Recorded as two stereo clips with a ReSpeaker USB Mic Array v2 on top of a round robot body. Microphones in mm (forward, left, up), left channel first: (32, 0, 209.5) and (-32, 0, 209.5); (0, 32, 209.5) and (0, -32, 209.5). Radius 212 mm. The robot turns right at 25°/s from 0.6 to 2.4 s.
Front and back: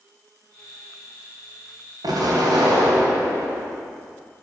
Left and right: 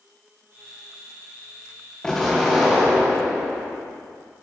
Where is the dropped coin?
No dropped coin in this recording.